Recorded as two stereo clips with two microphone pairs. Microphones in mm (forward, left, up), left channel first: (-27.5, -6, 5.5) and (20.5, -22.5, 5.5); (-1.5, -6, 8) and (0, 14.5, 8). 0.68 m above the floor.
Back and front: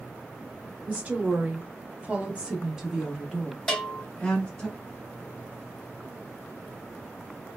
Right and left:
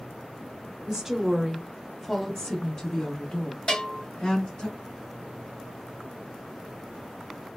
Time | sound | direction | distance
0.9 | a woman speaking | 30° left | 1.0 m
3.7 | a bell | 120° right | 1.1 m